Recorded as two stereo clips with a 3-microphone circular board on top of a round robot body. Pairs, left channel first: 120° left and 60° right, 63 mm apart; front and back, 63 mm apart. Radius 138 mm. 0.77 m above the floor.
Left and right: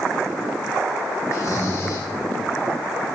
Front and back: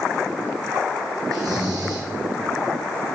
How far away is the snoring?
About 3 m.